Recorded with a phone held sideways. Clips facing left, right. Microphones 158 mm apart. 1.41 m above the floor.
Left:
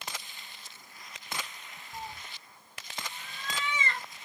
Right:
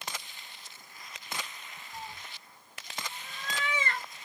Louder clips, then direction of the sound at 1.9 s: Left 2 dB; 20° left (ahead or behind).